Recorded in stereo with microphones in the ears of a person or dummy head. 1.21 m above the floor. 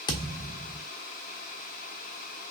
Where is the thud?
20° left (ahead or behind), 0.7 m.